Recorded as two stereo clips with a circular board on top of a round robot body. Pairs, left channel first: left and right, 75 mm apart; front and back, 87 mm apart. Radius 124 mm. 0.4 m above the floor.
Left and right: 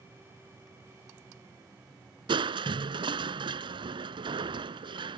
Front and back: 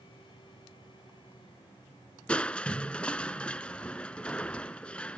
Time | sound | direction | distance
2.3 | crushing | 80° right | ?